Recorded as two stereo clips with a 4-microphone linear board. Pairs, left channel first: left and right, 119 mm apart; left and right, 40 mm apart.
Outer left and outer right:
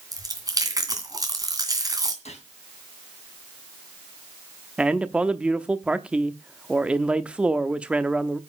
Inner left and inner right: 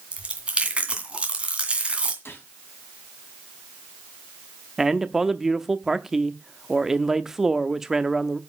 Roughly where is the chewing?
Right.